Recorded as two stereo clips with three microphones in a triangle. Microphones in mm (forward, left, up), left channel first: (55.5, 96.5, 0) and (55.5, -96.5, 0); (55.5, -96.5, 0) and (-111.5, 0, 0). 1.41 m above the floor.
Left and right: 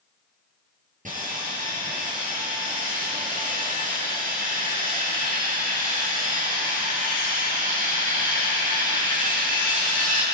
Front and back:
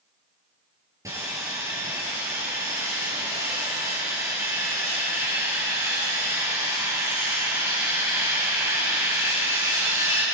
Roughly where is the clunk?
No clunk in this recording.